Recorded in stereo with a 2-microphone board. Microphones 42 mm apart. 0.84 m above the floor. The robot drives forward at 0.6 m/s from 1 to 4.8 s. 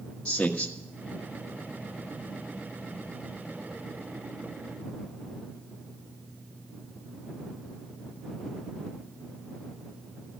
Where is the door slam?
I don't hear a door slam.